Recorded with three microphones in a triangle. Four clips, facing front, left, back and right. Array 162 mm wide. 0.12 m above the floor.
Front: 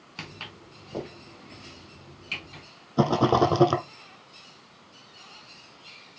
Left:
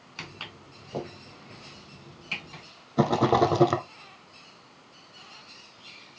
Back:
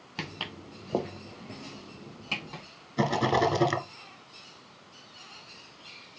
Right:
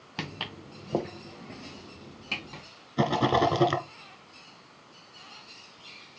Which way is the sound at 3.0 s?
35° left.